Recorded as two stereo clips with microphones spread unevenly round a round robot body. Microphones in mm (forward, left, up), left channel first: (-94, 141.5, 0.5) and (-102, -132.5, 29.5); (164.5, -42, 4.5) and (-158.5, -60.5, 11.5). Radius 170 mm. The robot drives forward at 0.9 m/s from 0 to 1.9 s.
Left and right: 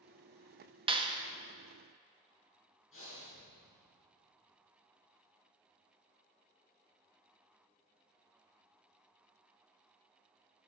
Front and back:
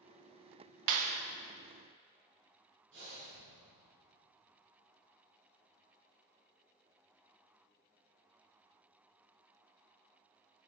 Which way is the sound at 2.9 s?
125° left.